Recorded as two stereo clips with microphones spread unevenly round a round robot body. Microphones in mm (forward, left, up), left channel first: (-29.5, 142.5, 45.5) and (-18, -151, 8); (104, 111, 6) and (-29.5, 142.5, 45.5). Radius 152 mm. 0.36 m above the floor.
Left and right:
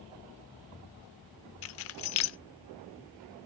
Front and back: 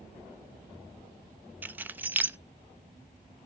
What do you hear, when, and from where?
1.6 s keys jangling: 75° left, 0.5 m